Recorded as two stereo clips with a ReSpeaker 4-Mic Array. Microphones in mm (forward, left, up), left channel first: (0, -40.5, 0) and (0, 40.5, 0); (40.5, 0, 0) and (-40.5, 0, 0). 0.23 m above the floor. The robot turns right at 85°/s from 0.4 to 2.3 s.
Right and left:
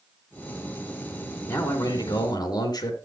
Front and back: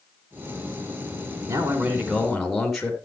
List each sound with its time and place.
1.5 s a man speaking: 155° right, 3 m; by 3.0 s 90° right, 3 m